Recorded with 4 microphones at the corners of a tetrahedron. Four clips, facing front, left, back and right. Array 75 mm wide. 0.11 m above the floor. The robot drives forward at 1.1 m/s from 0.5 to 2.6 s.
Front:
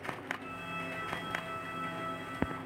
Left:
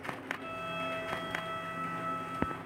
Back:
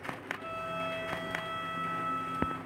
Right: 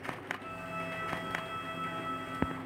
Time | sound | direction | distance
0.4 | a violin | 120° left | 1.7 m